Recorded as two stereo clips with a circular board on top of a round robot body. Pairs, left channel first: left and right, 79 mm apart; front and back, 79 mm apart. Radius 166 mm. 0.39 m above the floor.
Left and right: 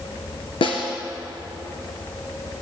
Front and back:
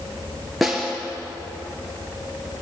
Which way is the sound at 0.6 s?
90° left.